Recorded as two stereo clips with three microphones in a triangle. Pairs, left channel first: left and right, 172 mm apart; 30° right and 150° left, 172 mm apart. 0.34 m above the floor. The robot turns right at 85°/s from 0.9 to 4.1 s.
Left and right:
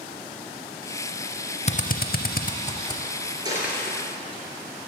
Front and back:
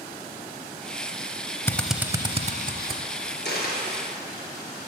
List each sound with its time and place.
1.7 s a drill: 45° left, 0.6 m; by 3.0 s 155° left, 0.6 m
3.5 s a dropped coin: 25° right, 1.8 m; by 4.4 s 30° left, 1.8 m